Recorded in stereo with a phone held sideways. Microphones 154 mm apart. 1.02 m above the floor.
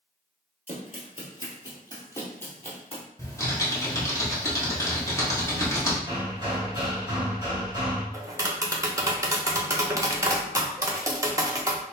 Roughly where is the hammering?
Centre.